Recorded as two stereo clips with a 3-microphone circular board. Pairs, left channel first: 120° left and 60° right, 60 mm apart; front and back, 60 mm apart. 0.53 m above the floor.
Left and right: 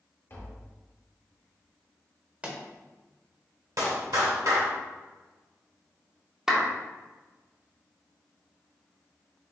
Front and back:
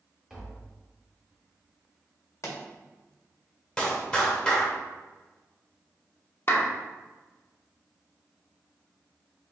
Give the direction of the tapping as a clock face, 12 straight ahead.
9 o'clock.